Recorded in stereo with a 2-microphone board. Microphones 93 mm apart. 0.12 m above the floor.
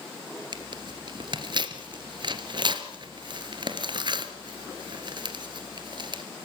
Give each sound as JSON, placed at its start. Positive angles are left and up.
{"t": 0.5, "sound": "tearing paper", "side_deg": -50, "distance_m": 2.0}